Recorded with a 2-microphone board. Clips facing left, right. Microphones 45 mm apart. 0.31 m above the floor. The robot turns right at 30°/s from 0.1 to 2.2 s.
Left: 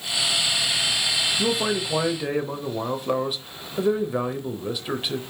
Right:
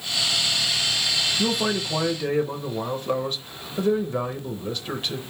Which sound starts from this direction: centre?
A man speaking, at 1.4 s.